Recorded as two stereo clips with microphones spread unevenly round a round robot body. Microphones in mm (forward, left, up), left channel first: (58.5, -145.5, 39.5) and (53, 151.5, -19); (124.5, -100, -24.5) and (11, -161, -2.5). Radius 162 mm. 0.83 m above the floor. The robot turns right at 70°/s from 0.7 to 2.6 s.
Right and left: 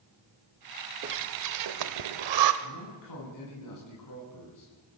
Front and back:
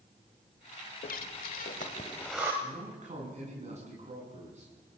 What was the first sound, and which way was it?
Breathing, 30° left.